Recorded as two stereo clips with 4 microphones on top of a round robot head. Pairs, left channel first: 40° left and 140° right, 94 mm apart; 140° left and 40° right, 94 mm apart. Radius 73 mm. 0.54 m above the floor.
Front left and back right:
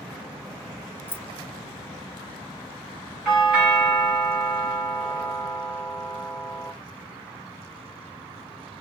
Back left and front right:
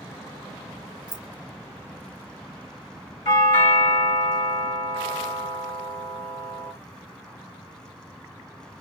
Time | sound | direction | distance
1.1 | keys jangling | 20° left | 0.7 m
3.2 | a doorbell | 135° left | 2.5 m